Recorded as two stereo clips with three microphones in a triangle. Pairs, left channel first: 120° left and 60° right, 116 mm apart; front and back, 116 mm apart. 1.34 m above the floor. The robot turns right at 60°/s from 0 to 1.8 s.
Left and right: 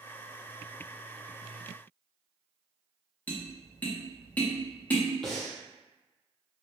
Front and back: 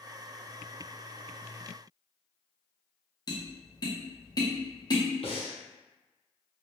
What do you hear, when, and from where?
3.3 s tapping: 45° left, 0.6 m
5.2 s breathing: 30° left, 0.7 m